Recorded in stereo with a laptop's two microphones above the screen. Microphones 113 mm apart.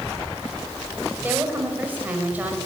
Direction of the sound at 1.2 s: 15° right (ahead or behind).